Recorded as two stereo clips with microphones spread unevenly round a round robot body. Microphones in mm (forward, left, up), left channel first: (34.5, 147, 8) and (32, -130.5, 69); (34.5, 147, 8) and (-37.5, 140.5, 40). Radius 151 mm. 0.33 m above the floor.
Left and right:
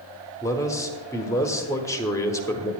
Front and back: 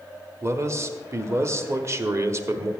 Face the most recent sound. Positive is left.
turn(degrees=125)